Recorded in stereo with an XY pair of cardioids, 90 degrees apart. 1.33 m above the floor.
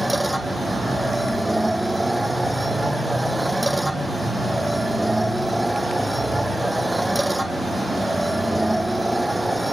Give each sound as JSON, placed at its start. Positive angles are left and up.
{"t": 0.0, "sound": "a machine running", "azimuth_deg": -5}